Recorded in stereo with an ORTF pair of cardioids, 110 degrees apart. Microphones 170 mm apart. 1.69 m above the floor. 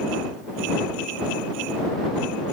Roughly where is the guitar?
I don't hear a guitar.